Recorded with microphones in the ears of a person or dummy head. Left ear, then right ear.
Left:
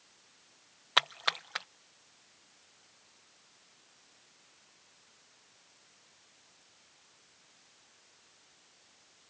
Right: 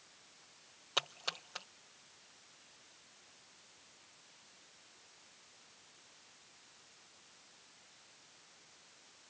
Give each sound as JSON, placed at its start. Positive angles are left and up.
{"t": 1.0, "sound": "a splash", "side_deg": 45}